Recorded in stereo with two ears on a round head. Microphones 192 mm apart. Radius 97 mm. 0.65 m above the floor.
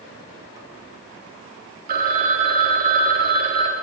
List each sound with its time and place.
1.9 s a phone ringing: 40° right (ahead or behind), 0.6 m